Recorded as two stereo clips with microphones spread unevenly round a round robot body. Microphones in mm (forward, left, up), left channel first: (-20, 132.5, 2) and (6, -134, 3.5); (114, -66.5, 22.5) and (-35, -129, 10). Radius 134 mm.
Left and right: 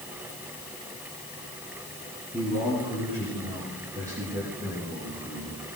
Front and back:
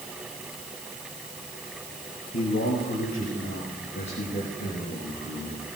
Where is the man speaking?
5° right, 8 m; by 5.7 s 35° right, 6.5 m.